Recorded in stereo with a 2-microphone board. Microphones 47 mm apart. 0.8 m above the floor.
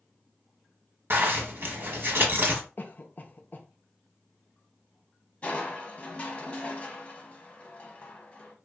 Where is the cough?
40° left (ahead or behind), 0.5 m.